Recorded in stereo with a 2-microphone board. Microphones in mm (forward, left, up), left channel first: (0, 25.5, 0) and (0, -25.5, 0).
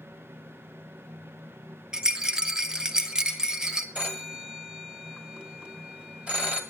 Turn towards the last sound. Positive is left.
turn(degrees=-25)  # may be behind; listen again after turning